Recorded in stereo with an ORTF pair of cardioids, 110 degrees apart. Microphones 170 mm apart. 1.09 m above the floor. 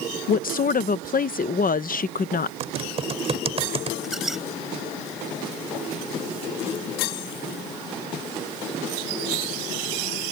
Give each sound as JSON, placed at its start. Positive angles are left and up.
{"t": 0.3, "sound": "a woman speaking", "azimuth_deg": 60}
{"t": 2.6, "sound": "typing on a keyboard", "azimuth_deg": -35}
{"t": 4.0, "sound": "a squeak", "azimuth_deg": 0}